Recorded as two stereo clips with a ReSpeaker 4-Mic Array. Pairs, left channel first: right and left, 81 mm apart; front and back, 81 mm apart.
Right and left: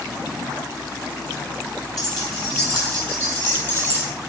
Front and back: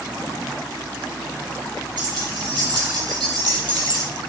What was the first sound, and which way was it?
Keys jangling, 175° right.